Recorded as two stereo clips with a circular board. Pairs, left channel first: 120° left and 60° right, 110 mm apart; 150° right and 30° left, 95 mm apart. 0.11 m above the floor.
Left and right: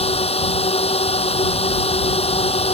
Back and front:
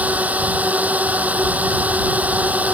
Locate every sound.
0.0 s a drone: 105° left